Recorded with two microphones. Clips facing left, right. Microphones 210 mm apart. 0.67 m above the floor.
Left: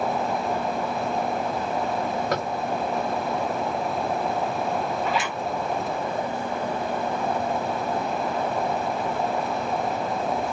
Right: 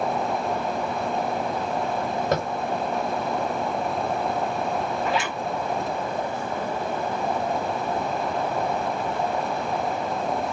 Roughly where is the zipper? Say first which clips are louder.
Right 1 dB; centre.